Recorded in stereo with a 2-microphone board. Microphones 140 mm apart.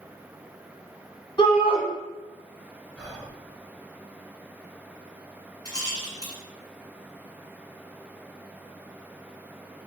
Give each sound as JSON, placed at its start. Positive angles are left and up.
{"t": 1.4, "sound": "a shout", "side_deg": 35, "distance_m": 1.4}
{"t": 3.0, "sound": "whispering", "side_deg": -15, "distance_m": 1.3}
{"t": 5.7, "sound": "a rattle", "side_deg": 30, "distance_m": 1.4}